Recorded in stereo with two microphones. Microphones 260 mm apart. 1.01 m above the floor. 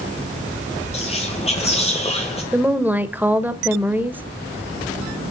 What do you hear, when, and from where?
0.9 s whispering: 25° left (ahead or behind), 1.0 m
2.5 s a woman speaking: 5° right (ahead or behind), 1.0 m